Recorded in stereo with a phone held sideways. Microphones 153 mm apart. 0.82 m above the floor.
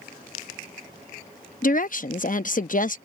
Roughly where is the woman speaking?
Left.